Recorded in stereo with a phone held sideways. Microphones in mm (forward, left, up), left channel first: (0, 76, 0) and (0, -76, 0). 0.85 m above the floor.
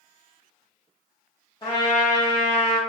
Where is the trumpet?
30° left (ahead or behind), 1.2 m.